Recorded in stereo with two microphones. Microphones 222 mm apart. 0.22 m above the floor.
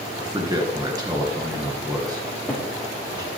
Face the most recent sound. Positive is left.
turn(degrees=10)  # may be behind; listen again after turning